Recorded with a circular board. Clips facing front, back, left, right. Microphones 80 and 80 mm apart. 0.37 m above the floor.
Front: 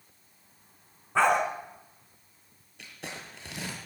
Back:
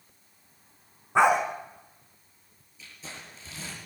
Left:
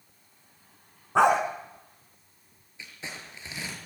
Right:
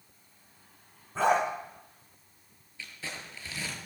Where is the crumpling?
20° left, 7 m.